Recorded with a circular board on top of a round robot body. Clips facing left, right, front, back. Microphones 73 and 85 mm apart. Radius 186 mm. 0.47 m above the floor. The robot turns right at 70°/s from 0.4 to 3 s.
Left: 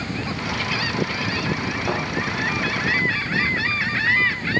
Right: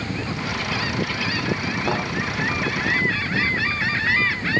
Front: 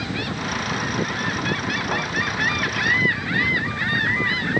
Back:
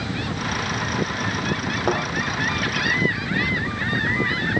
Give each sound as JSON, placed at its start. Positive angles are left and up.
{"t": 1.9, "sound": "a thud", "azimuth_deg": -170, "distance_m": 5.5}